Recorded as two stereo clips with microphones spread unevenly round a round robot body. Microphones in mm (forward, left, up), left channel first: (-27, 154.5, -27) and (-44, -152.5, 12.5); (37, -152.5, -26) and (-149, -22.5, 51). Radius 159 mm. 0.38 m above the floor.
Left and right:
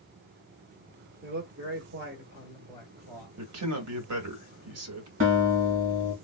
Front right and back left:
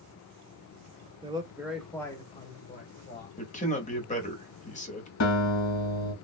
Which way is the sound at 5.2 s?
35° right.